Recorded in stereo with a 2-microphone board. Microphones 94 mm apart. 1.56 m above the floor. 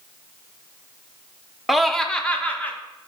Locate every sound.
1.7 s laughter: 5° right (ahead or behind), 0.6 m; by 2.8 s 15° left (ahead or behind), 1.3 m